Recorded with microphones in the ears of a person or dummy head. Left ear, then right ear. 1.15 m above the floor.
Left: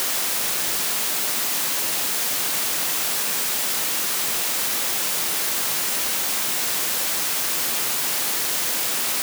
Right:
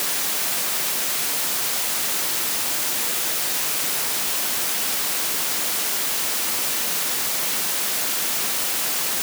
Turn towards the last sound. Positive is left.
No sound to turn to.